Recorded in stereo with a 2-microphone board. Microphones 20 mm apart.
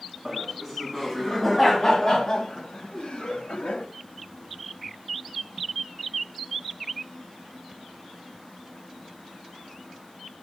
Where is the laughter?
5° right (ahead or behind), 3.5 m; by 3.9 s 60° left (ahead or behind), 2.5 m.